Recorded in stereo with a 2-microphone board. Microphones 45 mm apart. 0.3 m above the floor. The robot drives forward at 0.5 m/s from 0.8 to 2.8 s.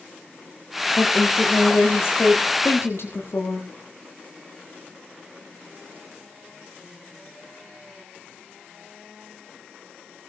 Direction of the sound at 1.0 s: 80° left.